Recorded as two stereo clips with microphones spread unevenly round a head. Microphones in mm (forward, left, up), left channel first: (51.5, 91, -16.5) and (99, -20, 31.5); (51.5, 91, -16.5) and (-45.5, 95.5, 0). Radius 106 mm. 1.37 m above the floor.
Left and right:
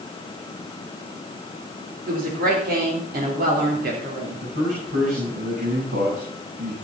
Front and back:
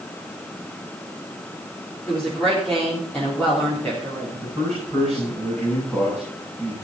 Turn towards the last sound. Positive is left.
turn(degrees=-95)